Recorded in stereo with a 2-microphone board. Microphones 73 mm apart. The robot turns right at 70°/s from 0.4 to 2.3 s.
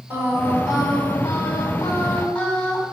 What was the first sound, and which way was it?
Singing, 30° left.